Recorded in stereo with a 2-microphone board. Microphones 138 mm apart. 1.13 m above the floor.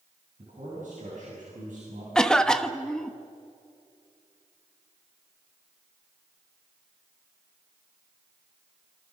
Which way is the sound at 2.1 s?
5° left (ahead or behind).